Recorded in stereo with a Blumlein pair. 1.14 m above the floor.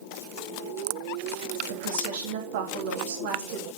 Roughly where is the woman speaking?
Ahead right.